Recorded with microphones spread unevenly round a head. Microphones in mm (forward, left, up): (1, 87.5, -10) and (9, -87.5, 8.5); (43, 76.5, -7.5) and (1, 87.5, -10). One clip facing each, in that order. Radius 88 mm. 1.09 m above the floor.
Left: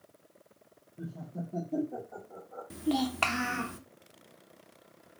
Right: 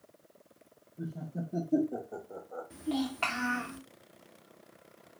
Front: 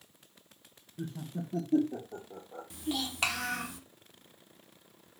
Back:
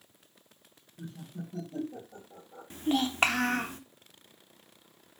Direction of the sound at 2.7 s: 120° left.